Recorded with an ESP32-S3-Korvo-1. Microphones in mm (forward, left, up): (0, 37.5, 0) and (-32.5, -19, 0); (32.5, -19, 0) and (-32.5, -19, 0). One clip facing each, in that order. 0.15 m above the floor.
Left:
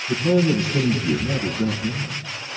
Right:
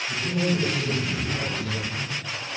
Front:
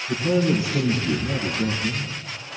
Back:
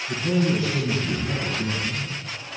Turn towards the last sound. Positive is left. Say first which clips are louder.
# left 8 dB, front 2 dB
turn(degrees=70)